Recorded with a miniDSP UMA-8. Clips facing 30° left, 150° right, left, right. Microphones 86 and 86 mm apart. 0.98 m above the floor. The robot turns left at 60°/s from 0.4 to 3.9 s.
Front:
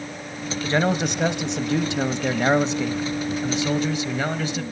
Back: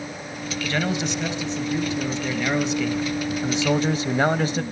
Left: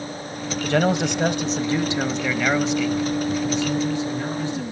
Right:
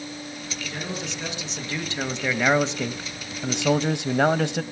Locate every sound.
0.6 s a man speaking: 95° left, 1.0 m; by 4.6 s 105° right, 1.0 m